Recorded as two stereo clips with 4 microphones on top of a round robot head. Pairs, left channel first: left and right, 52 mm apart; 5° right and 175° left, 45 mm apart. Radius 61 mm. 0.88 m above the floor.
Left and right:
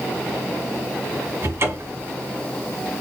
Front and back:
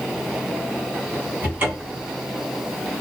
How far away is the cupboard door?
About 3 m.